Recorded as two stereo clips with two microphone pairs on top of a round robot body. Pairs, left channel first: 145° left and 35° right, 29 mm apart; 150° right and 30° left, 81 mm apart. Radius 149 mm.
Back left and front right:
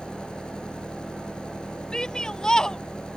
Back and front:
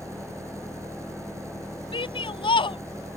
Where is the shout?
150° right.